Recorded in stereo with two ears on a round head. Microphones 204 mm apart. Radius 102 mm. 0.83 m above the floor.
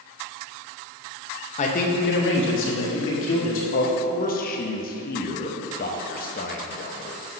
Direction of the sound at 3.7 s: 40° left (ahead or behind).